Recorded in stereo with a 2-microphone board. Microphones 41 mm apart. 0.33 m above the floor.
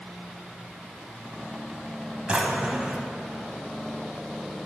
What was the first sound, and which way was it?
A drawer, 25° right (ahead or behind).